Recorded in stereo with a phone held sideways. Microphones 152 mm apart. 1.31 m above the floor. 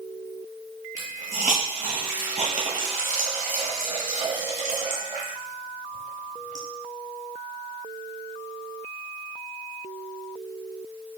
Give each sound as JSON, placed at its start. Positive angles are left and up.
{"t": 1.0, "sound": "a hiss", "side_deg": -55, "distance_m": 1.0}